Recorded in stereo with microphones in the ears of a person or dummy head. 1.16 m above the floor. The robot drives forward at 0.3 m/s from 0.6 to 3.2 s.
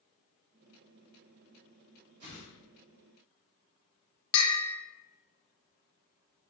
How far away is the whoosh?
About 2.0 m.